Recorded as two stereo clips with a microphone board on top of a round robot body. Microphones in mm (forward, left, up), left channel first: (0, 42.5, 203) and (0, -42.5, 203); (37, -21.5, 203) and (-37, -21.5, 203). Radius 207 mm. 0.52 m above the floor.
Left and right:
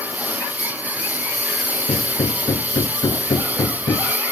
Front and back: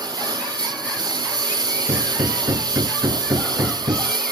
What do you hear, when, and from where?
0.0 s a lawn mower: 160° right
1.9 s hammering: 130° left